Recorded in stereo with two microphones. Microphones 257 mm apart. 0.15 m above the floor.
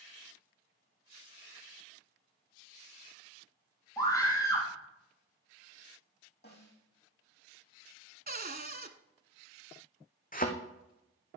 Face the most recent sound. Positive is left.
turn(degrees=35)  # may be behind; listen again after turning